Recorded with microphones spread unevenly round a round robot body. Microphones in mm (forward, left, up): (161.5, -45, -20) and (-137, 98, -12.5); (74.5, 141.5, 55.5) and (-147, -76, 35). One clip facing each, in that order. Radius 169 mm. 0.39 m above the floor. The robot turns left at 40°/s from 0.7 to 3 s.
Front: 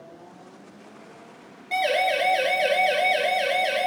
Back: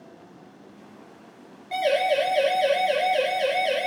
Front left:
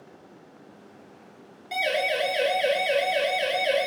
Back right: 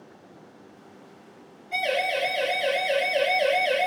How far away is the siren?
About 6 m.